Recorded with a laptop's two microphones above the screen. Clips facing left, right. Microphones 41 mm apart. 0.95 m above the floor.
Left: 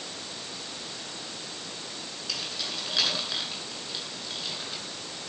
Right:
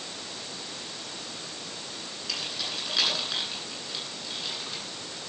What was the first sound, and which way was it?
Keys jangling, centre (ahead or behind).